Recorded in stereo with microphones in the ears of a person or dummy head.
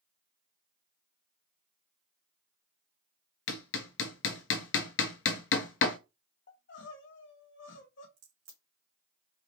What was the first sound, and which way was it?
Hammering, 65° left (ahead or behind).